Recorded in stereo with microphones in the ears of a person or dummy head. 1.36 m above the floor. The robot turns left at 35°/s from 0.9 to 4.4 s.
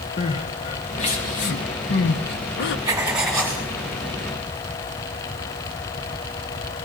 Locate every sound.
0.2 s crying: 30° left (ahead or behind), 1.0 m; by 2.8 s 60° left (ahead or behind), 1.0 m
2.9 s writing: 15° right (ahead or behind), 2.5 m; by 3.6 s 10° left (ahead or behind), 2.5 m